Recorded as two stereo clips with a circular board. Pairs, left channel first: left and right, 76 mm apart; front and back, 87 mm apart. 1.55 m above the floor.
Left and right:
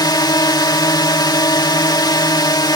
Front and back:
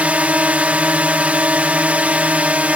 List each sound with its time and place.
0.0 s a drone: 105° left